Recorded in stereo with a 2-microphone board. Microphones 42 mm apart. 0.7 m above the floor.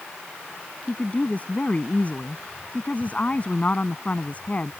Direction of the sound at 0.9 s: 35° left (ahead or behind).